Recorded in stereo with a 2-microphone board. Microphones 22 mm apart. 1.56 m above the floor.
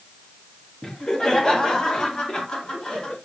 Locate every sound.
0.8 s laughter: 25° left (ahead or behind), 2.5 m; by 3.1 s 35° left (ahead or behind), 4 m